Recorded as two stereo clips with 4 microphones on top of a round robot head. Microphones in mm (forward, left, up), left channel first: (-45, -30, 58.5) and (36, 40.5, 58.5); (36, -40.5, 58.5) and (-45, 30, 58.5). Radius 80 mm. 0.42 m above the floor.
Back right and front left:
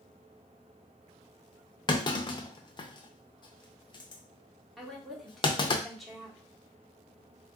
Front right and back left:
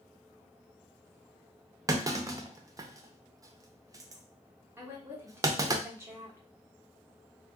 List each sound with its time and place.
1.9 s a clunk: 170° right, 0.6 m
4.8 s a woman speaking: 135° left, 1.3 m